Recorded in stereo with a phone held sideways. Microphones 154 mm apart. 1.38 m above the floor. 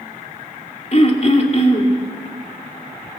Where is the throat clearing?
45° left (ahead or behind), 2.5 m.